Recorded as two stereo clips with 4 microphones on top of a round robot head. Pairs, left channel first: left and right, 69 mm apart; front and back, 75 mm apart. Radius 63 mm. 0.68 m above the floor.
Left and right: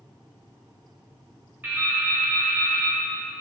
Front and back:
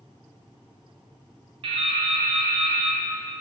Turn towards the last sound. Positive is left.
turn(degrees=-160)